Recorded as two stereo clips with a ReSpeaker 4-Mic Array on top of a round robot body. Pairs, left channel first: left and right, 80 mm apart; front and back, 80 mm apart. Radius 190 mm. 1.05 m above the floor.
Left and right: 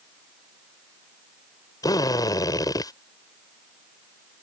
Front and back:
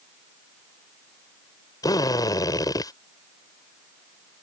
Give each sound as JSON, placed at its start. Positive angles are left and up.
{"t": 1.8, "sound": "a drill", "azimuth_deg": 45}